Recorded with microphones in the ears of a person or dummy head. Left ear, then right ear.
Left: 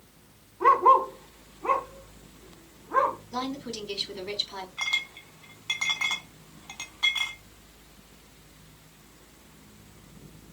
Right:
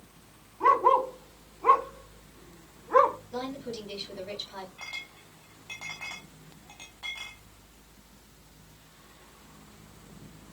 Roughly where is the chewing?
No chewing in this recording.